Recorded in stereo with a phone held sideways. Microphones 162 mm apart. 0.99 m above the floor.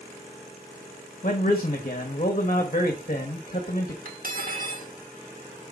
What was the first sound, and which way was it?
A man speaking, 45° left (ahead or behind).